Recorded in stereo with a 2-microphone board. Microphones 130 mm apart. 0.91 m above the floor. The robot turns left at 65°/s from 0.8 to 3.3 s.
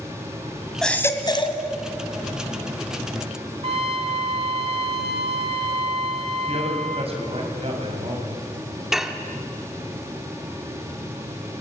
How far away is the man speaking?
About 5.5 m.